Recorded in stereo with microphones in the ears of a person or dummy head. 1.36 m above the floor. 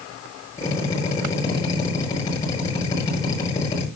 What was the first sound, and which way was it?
A drill, 20° left (ahead or behind).